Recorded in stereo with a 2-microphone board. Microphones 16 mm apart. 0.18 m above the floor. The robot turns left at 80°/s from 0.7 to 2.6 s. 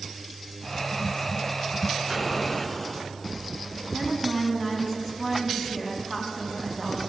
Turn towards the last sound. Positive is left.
turn(degrees=-25)  # may be behind; listen again after turning